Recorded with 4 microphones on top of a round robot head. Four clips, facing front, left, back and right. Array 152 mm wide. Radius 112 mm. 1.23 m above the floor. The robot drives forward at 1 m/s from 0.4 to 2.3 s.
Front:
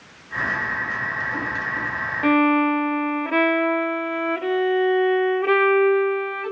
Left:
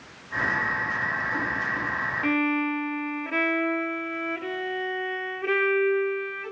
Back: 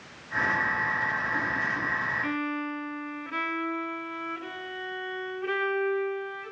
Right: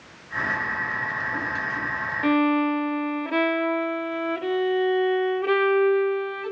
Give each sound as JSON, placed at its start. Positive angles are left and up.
{"t": 2.2, "sound": "a violin", "azimuth_deg": -15, "distance_m": 0.6}